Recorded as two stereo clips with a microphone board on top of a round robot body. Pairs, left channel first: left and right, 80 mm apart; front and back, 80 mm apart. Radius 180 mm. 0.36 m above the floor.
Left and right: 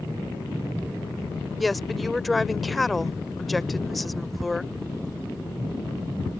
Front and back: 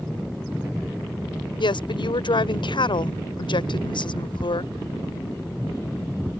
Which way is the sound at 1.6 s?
Straight ahead.